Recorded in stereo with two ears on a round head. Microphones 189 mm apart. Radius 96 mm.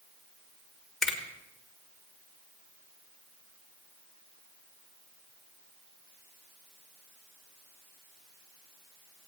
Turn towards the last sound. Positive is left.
turn(degrees=0)  # may be behind; listen again after turning